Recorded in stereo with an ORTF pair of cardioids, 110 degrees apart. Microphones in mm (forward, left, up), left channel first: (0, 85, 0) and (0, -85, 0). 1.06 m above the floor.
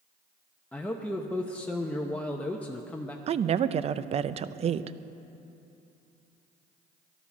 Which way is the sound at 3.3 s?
40° right.